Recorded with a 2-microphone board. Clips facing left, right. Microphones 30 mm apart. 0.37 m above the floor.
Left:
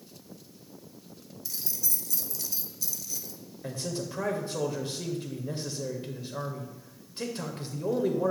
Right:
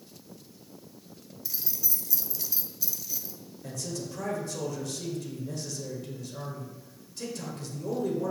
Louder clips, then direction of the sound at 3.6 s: Left 2 dB; 35° left (ahead or behind).